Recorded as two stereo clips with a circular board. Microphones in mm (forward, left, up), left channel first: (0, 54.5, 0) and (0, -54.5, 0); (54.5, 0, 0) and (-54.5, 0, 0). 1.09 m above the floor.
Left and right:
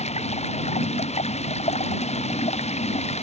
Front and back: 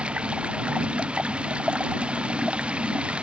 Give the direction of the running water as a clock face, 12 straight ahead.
9 o'clock.